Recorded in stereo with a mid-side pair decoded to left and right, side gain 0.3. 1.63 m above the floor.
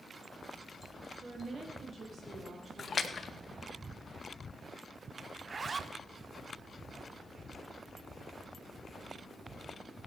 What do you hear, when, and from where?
1.2 s a woman speaking: 60° right, 3 m; by 3.5 s 55° right, 6 m
2.8 s a splash: 55° left, 1.1 m
5.4 s a zipper: 50° right, 0.7 m